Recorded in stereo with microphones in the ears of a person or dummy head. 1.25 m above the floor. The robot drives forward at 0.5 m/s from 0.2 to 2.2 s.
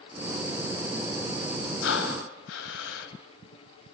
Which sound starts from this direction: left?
Breathing, at 1.8 s.